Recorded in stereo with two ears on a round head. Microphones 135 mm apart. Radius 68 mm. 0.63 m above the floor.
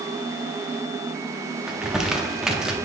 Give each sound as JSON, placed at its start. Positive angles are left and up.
{"t": 1.7, "sound": "crumpling", "side_deg": -5, "distance_m": 0.7}